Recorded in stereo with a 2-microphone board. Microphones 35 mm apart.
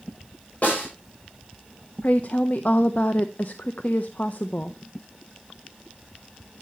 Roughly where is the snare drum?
Left.